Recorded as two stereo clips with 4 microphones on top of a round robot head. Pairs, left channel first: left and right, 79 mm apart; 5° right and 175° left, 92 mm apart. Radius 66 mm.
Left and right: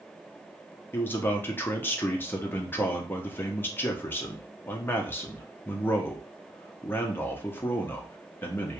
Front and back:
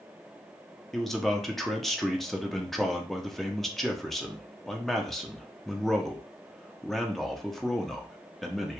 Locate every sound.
0.9 s a man speaking: 80° left, 0.5 m